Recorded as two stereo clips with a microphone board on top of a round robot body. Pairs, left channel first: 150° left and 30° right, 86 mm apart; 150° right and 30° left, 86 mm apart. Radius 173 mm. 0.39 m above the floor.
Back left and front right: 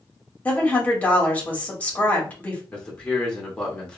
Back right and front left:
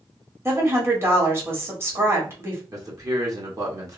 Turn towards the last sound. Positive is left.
turn(degrees=75)